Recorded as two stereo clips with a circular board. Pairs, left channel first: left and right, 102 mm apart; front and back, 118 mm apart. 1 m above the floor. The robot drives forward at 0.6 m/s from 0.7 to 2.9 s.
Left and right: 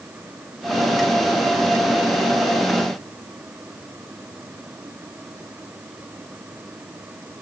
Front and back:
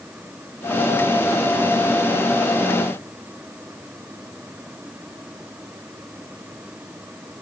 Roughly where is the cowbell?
I don't hear a cowbell.